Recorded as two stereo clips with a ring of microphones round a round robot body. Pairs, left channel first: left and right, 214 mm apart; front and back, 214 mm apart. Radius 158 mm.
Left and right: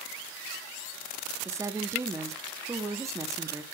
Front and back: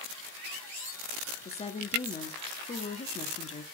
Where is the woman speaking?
25° right, 0.9 m.